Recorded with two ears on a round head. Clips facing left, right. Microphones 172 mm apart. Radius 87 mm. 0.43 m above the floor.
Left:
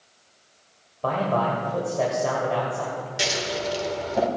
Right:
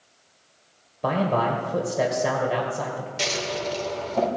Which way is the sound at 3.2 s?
10° left (ahead or behind).